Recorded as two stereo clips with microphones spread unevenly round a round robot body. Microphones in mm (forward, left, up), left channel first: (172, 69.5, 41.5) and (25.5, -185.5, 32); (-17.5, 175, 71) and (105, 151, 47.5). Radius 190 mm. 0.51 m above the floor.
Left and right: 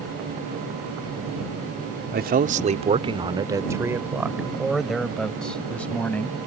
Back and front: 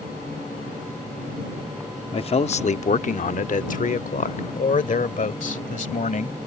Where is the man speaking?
155° right; by 6.4 s 145° left.